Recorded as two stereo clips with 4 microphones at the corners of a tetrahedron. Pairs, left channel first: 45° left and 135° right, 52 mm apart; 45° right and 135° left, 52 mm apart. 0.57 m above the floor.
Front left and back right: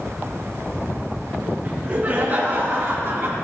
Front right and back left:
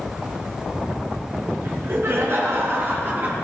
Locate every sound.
1.6 s laughter: 160° left, 5.5 m; by 3.3 s straight behind, 4.5 m